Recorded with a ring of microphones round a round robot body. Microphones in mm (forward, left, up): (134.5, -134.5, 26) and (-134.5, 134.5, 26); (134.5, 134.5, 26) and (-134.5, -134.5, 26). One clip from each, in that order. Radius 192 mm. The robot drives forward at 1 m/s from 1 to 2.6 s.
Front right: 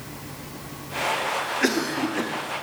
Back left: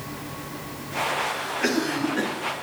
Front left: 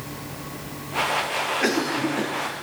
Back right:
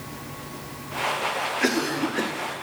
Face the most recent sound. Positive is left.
turn(degrees=-150)